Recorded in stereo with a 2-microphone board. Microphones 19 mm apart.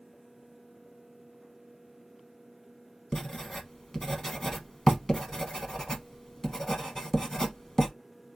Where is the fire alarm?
No fire alarm in this recording.